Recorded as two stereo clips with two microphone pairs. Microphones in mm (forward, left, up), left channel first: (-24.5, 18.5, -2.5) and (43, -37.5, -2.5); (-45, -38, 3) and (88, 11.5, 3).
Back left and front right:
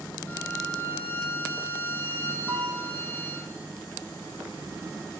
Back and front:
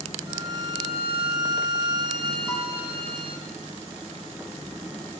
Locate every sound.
0.3 s a violin: 75° left, 2.5 m
2.5 s a piano: 90° right, 1.5 m